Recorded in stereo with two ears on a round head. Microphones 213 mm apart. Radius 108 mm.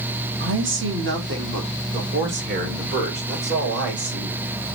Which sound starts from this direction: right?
A man speaking, at 0.4 s.